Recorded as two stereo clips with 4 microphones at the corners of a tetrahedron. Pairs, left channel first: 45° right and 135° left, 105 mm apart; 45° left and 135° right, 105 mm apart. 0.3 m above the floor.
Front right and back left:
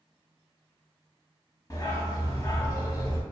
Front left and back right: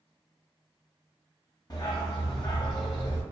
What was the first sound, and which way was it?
A dog barking, straight ahead.